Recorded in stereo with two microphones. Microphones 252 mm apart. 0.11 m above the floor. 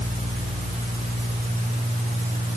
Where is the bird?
No bird in this recording.